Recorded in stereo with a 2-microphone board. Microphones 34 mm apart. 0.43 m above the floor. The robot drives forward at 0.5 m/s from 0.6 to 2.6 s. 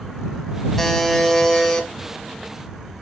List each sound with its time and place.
0.8 s a buzzer: 10° left (ahead or behind), 1.4 m